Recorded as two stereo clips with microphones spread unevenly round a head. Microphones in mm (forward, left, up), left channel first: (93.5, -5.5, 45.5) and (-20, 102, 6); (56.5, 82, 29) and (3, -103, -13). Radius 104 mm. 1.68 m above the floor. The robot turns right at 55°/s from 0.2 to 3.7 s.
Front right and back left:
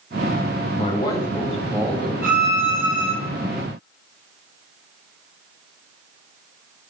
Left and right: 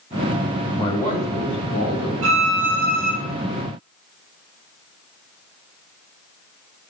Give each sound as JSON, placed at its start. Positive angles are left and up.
{"t": 0.8, "sound": "a man speaking", "azimuth_deg": 5, "distance_m": 1.8}
{"t": 2.2, "sound": "a violin", "azimuth_deg": -130, "distance_m": 1.5}